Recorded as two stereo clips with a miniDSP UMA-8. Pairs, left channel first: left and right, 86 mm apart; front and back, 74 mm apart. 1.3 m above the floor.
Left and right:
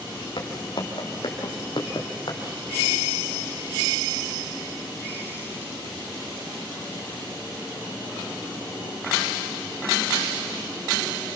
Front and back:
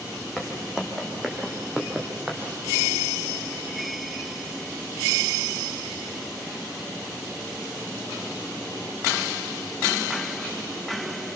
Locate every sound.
0.4 s footsteps: 90° left, 4 m; by 2.4 s 110° left, 3.5 m